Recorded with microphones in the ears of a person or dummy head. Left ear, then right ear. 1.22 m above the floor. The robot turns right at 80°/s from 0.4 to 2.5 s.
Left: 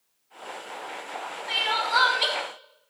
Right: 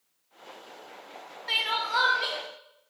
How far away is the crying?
About 0.9 m.